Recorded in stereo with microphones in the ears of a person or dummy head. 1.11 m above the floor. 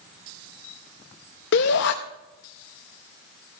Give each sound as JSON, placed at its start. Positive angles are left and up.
{"t": 1.5, "sound": "a shout", "side_deg": 60, "distance_m": 0.7}